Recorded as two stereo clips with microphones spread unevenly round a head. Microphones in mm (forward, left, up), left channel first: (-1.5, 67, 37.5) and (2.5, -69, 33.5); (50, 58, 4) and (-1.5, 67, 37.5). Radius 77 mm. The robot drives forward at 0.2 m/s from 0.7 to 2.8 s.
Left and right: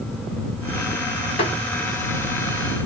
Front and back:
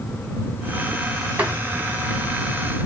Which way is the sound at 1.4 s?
140° left.